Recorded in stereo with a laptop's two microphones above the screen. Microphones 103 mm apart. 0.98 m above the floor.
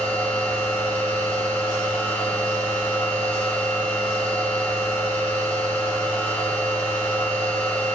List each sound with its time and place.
0.0 s a machine running: 5° left (ahead or behind), 7.5 m